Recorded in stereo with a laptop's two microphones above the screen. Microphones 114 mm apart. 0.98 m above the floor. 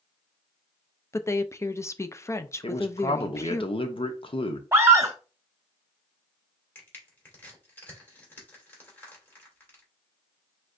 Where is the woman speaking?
25° left (ahead or behind), 0.5 m.